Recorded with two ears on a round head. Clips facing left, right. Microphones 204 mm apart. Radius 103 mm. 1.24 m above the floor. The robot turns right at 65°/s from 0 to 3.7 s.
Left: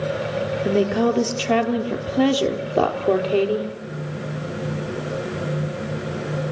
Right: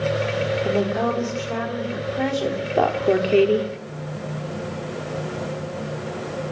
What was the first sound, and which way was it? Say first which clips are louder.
A woman speaking: left 6 dB; 30° left.